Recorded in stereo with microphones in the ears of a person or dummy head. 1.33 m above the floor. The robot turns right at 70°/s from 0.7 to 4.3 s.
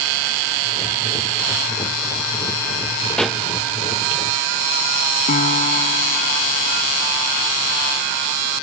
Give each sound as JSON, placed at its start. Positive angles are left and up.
{"t": 3.2, "sound": "a pop", "side_deg": 5}
{"t": 5.3, "sound": "a piano", "side_deg": 45}